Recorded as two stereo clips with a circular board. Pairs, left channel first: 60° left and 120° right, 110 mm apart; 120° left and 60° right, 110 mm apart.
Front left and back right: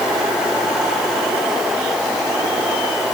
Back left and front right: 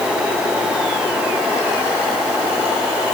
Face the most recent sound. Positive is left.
No sound to turn to.